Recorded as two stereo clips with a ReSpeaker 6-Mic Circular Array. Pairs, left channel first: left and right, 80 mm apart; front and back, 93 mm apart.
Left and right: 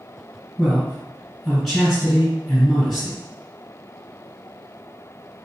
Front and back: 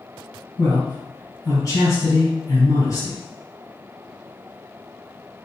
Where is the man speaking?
Straight ahead, 1.8 m.